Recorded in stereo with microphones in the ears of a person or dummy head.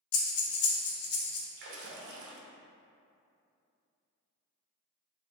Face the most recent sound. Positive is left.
turn(degrees=-60)  # may be behind; listen again after turning